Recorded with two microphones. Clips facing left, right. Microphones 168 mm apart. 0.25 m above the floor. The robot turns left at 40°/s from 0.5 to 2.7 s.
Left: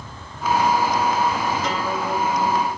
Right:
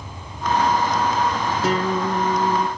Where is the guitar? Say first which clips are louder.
Right 3 dB; 30° right, 4 m; by 2.7 s 70° right, 4 m.